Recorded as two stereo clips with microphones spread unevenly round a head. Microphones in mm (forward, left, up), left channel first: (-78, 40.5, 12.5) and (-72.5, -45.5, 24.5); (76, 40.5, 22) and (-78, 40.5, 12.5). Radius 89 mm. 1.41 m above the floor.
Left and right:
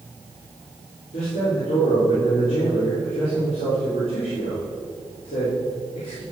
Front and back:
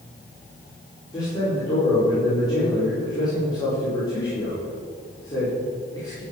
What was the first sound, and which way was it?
A man speaking, 65° left.